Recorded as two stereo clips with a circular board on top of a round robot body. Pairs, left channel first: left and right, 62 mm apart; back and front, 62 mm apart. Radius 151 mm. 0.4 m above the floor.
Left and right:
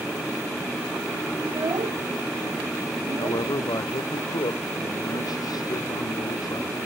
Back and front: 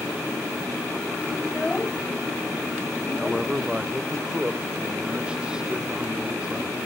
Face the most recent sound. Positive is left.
turn(degrees=75)